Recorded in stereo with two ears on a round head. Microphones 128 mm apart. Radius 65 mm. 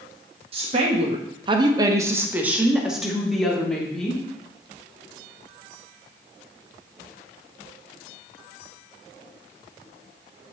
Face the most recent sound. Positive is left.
turn(degrees=5)  # may be behind; listen again after turning